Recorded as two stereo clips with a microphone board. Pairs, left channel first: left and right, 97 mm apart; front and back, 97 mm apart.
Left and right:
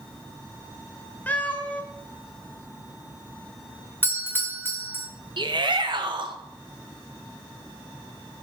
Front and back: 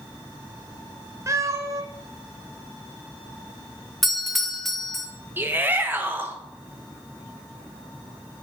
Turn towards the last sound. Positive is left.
turn(degrees=-115)